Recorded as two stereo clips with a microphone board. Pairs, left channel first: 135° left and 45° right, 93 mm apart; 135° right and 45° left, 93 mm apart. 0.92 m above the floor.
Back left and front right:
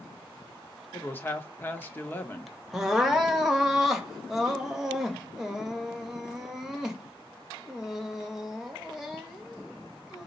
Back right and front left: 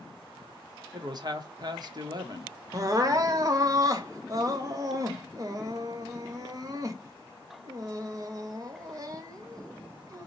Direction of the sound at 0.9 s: 70° left.